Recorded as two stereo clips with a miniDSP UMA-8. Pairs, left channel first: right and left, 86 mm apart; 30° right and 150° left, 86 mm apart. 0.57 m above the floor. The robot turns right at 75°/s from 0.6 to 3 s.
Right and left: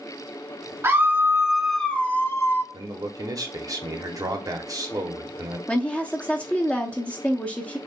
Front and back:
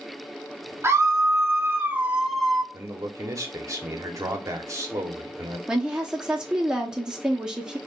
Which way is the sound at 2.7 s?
95° left.